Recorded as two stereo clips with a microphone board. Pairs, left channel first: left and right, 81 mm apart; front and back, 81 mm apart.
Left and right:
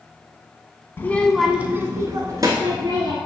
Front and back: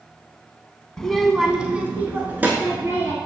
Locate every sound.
1.0 s a child speaking: 75° left, 0.7 m; by 3.2 s 115° right, 1.6 m